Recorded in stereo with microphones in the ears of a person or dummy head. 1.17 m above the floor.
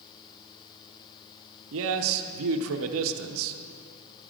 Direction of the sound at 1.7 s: 80° right.